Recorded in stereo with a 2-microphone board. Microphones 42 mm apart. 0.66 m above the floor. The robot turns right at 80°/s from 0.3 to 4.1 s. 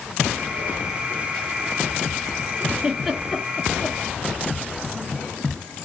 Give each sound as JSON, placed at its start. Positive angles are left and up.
{"t": 2.8, "sound": "a giggle", "side_deg": -15, "distance_m": 1.2}